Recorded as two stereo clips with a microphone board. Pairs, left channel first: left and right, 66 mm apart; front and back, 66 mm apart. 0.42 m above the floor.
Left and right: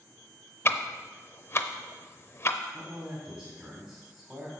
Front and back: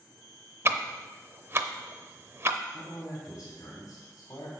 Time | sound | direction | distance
0.7 | ticking | 135° left | 0.6 m
2.7 | a man speaking | 30° right | 2.5 m